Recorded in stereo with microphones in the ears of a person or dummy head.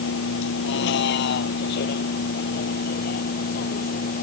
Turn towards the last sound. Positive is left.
turn(degrees=50)  # may be behind; listen again after turning